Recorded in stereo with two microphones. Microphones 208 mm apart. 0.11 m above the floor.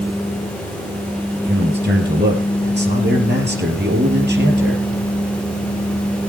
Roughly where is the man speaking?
Right.